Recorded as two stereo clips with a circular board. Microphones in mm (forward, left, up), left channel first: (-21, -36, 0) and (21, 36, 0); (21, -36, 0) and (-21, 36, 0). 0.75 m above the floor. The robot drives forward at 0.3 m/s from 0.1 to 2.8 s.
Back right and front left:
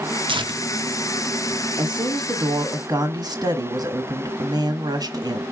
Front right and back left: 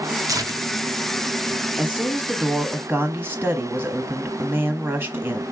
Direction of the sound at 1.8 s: 45° left.